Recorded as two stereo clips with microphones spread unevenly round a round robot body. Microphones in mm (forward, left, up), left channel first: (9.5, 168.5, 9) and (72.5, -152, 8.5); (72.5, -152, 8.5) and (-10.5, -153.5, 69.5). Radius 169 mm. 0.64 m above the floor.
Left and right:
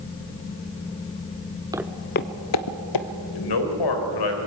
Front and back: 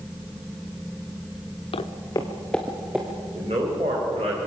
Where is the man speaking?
110° left, 3.5 m.